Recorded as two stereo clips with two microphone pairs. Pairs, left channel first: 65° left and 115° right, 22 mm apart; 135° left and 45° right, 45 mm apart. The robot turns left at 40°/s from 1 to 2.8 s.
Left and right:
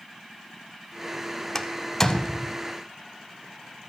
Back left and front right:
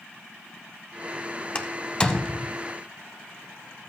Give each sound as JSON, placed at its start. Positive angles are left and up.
{"t": 1.6, "sound": "a door slam", "azimuth_deg": 110, "distance_m": 0.7}